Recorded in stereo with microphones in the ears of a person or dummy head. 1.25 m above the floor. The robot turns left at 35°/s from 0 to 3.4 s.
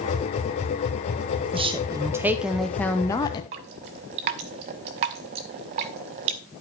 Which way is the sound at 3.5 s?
30° right (ahead or behind).